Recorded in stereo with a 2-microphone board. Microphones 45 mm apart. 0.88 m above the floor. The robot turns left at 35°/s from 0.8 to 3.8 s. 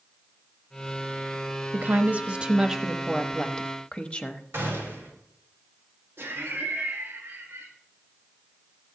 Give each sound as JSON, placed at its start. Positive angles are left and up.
{"t": 1.7, "sound": "a woman speaking", "azimuth_deg": -135, "distance_m": 0.9}
{"t": 4.5, "sound": "a gunshot", "side_deg": -55, "distance_m": 3.5}
{"t": 6.2, "sound": "laughter", "side_deg": -60, "distance_m": 1.3}